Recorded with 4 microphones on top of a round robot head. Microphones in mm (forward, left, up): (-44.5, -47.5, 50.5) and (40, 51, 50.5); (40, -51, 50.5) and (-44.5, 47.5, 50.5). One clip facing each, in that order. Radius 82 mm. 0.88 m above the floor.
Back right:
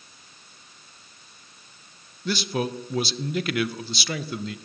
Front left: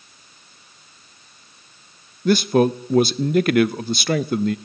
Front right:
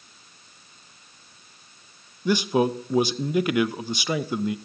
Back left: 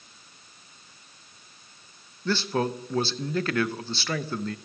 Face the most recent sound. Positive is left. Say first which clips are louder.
# front left 11 dB, front right 5 dB
turn(degrees=25)